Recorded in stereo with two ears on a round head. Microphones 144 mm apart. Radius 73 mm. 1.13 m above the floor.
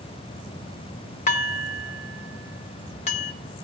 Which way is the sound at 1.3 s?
45° left (ahead or behind).